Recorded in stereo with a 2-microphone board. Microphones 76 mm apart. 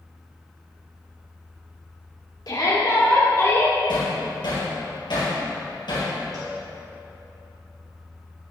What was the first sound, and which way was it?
A shout, 60° left (ahead or behind).